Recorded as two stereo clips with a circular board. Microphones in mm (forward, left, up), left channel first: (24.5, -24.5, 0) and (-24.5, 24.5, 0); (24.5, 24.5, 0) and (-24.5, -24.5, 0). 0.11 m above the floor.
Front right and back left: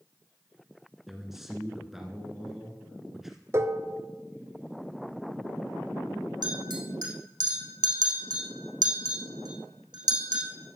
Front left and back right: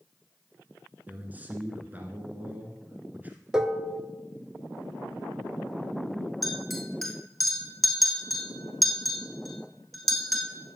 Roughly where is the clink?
Behind left.